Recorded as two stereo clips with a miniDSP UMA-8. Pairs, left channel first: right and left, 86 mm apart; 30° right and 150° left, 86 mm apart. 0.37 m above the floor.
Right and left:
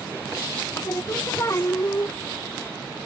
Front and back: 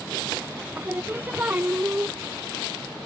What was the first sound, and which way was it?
Singing, 145° right.